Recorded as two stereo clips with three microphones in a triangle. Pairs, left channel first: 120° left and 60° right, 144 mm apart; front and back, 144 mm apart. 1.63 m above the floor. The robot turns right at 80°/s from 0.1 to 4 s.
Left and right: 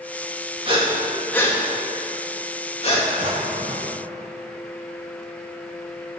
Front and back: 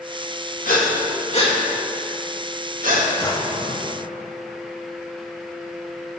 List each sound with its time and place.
0.7 s breathing: 15° right, 2 m; by 3.1 s straight behind, 2 m
3.2 s a drawer: 60° right, 2 m; by 4.0 s 5° left, 2 m